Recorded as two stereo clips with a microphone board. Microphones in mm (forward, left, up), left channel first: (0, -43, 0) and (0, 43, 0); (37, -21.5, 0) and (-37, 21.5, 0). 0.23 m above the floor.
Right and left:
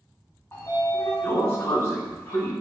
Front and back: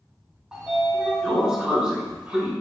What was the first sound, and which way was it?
A sliding door, 135° right.